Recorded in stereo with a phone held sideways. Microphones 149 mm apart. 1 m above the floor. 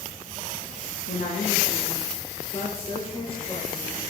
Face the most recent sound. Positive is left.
turn(degrees=40)  # may be behind; listen again after turning